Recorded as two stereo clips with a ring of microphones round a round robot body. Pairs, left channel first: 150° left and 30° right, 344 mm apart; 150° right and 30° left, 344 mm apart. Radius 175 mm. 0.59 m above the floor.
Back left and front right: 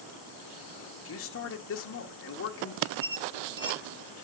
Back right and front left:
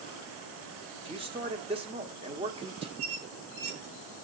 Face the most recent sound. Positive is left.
turn(degrees=55)